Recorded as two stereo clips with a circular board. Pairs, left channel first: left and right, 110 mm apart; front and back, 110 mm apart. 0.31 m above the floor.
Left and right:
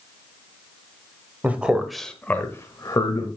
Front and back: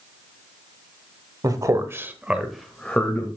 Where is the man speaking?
155° right, 1.2 m; by 3.3 s 65° left, 1.3 m.